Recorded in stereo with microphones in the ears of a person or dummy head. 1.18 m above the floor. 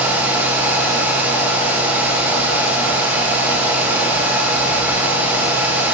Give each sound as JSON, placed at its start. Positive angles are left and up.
{"t": 0.0, "sound": "a fan", "side_deg": -5, "distance_m": 1.1}